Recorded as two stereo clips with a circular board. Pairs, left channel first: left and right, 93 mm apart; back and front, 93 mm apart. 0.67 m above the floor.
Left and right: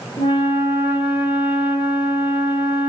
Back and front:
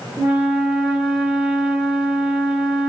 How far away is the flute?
About 1.3 m.